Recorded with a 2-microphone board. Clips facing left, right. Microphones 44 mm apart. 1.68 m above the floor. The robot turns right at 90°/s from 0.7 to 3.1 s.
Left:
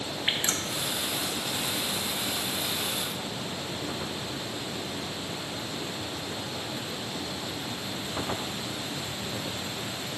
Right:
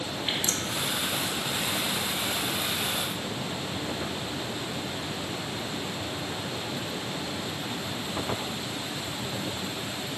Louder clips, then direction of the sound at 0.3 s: Left 2 dB; 35° left (ahead or behind).